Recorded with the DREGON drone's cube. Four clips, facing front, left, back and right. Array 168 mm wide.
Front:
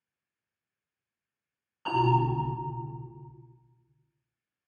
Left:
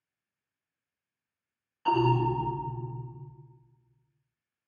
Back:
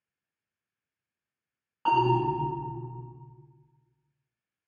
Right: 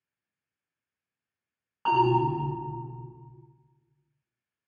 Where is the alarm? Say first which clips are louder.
Right 2 dB, back 2 dB; 125° right, 1.7 m.